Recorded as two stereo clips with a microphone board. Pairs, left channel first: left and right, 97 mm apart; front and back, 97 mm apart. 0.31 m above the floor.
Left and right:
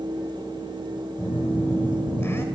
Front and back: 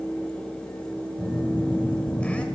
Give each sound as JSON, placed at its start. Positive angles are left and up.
{"t": 1.2, "sound": "a phone buzzing", "azimuth_deg": 65, "distance_m": 1.5}